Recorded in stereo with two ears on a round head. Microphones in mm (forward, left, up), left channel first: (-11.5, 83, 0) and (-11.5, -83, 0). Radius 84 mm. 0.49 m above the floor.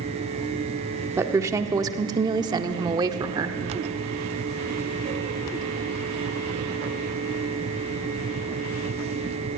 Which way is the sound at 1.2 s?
15° right (ahead or behind).